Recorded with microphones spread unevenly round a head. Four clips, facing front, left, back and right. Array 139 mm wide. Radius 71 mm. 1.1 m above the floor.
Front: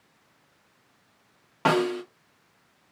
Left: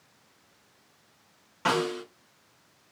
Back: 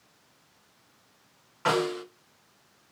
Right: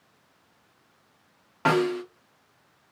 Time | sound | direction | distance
1.6 | a snare drum | 25° right | 0.9 m